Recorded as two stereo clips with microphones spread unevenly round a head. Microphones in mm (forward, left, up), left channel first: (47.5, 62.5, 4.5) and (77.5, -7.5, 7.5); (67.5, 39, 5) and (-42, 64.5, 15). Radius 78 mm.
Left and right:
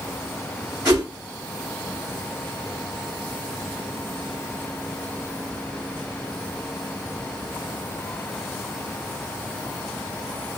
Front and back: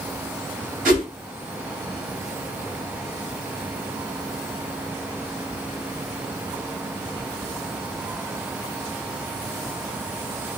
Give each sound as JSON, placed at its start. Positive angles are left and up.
{"t": 0.8, "sound": "a whoosh", "azimuth_deg": -155, "distance_m": 2.0}